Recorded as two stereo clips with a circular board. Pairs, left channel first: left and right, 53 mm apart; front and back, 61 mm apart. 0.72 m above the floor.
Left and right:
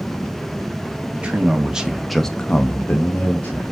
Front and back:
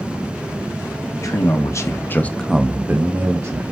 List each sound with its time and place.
1.1 s a man speaking: 25° right, 1.2 m; by 3.7 s 140° left, 1.2 m